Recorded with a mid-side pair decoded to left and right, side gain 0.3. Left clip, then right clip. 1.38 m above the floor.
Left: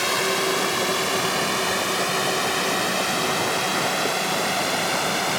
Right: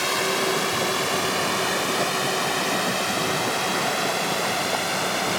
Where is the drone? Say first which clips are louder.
Left 1 dB; 10° left; by 5.4 s 15° left.